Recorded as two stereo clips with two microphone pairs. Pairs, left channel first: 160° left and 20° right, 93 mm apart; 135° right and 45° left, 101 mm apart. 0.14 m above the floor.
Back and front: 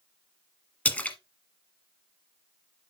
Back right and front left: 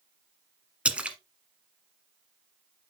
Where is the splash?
110° left, 1.1 m.